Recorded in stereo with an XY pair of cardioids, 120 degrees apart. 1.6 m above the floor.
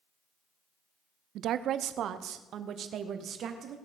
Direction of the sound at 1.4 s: 65° right.